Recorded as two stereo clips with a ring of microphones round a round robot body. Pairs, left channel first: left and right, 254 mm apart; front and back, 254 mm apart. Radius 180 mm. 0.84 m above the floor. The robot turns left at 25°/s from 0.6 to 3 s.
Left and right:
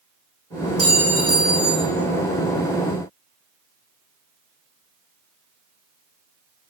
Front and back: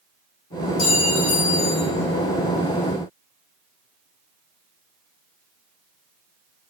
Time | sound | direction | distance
0.8 | a clink | straight ahead | 5 m